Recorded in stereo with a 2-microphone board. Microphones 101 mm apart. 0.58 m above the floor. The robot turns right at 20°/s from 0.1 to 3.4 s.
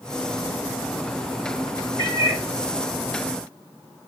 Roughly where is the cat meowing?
Right.